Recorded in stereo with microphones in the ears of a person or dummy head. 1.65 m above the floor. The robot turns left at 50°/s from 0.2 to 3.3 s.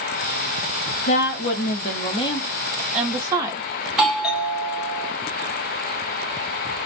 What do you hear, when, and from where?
1.1 s a woman speaking: 90° left, 0.8 m; by 3.6 s 20° right, 0.8 m
3.9 s a doorbell: centre (ahead or behind), 0.9 m